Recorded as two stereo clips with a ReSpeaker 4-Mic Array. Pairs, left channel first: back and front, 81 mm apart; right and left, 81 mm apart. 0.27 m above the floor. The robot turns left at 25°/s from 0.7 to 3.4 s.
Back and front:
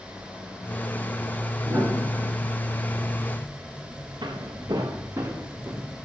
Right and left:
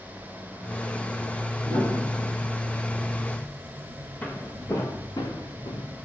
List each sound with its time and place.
1.6 s a piano: 60° right, 3.5 m; by 2.5 s 80° right, 3.5 m
4.2 s footsteps: 20° right, 2.0 m; by 5.8 s 75° right, 2 m